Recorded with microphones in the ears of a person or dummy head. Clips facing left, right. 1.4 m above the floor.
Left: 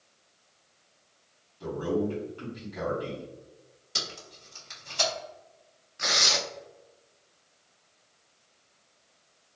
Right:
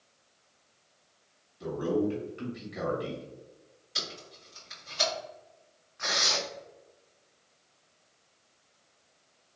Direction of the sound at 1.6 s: 20° right (ahead or behind).